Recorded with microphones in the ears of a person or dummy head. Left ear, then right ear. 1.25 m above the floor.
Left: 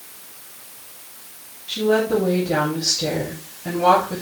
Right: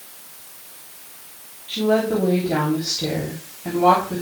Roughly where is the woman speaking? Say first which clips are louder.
Left 1 dB; centre.